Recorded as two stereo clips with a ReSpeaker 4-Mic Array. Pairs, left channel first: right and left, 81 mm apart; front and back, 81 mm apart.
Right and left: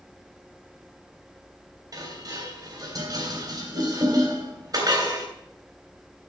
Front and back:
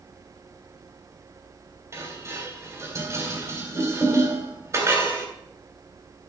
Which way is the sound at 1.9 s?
130° left.